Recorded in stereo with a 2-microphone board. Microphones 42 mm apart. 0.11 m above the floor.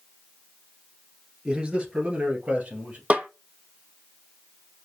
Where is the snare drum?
35° right (ahead or behind), 0.6 m.